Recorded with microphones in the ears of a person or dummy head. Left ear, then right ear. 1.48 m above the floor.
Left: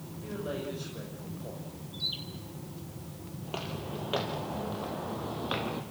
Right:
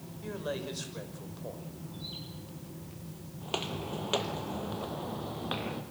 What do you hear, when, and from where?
0.2 s a man speaking: 90° right, 6 m
1.9 s a bird: 45° left (ahead or behind), 7 m
3.4 s footsteps: 40° right (ahead or behind), 2 m; by 5.8 s centre (ahead or behind), 3 m